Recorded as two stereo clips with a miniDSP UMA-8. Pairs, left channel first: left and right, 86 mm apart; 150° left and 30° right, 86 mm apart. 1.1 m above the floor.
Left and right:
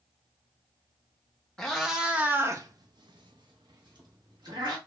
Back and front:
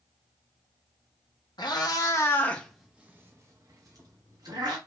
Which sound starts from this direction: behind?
A cat meowing, at 1.6 s.